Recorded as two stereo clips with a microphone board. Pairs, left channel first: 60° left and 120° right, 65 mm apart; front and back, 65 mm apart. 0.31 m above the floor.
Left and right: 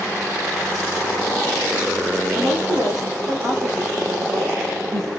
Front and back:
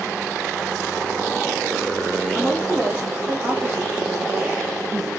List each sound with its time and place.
2.4 s a woman speaking: 115° right, 4.5 m; by 5.1 s 130° right, 4 m